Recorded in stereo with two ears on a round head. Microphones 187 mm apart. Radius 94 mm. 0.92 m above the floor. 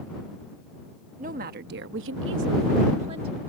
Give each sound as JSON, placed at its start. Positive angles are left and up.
{"t": 1.2, "sound": "a woman speaking", "side_deg": -40}